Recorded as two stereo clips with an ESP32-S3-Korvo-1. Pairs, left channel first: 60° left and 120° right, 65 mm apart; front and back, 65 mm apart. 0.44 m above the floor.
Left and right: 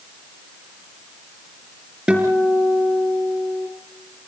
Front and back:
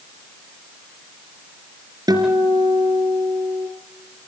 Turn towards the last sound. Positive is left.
turn(degrees=165)